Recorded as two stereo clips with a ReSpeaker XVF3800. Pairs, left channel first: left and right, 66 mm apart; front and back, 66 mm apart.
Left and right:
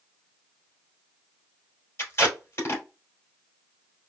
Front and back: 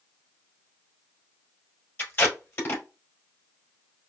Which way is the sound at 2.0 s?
50° left.